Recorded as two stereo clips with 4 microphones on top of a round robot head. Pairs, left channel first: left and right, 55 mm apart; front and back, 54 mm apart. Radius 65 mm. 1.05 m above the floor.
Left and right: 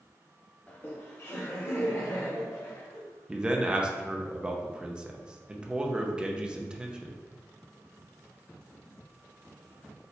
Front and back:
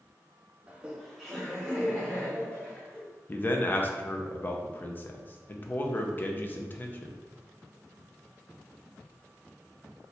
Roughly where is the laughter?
Behind left.